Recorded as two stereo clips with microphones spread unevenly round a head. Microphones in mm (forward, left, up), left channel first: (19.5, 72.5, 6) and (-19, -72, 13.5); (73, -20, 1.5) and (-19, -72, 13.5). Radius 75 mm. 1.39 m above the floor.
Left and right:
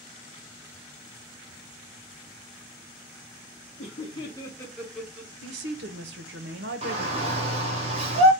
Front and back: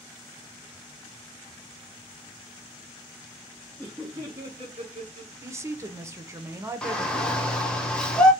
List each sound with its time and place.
3.8 s laughter: 110° left, 0.8 m; by 5.3 s straight behind, 0.9 m
5.4 s a woman speaking: 85° right, 0.7 m
6.8 s a shout: 55° right, 1.1 m